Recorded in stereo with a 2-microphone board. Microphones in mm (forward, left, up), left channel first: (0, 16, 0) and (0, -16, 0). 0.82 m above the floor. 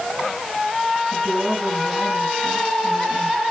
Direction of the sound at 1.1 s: 45° right (ahead or behind).